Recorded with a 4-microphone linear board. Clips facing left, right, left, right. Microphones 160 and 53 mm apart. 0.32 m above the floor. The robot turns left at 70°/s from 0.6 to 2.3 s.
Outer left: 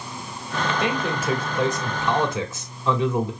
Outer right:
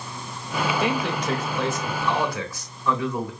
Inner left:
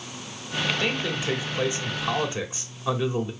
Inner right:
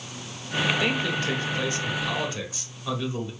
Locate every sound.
0.8 s a man speaking: 5° right (ahead or behind), 1.4 m; by 3.3 s 20° left (ahead or behind), 1.4 m